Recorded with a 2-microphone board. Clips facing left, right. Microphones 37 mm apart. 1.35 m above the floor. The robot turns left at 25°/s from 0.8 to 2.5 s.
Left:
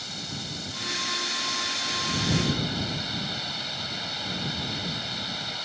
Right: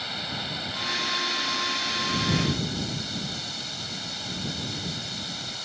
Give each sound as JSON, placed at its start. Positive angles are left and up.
{"t": 0.0, "sound": "running water", "azimuth_deg": -155}